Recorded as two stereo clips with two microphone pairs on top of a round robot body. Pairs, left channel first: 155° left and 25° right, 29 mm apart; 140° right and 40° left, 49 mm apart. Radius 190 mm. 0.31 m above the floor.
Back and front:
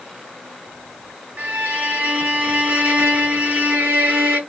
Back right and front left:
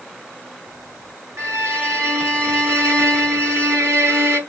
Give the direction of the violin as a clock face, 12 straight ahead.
12 o'clock.